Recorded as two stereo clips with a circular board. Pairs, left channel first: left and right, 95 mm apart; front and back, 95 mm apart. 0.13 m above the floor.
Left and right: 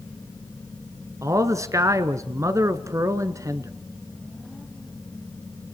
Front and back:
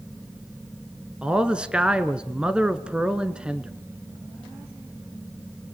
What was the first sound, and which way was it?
A man speaking, 105° right.